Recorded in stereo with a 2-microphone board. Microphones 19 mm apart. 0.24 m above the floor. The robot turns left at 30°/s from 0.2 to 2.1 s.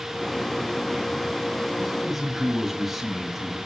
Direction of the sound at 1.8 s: 15° right (ahead or behind).